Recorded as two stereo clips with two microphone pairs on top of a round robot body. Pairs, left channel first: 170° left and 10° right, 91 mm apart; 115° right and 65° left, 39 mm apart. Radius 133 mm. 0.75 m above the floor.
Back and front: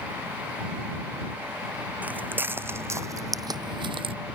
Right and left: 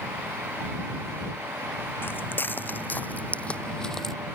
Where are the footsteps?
85° right; by 4.2 s 35° right.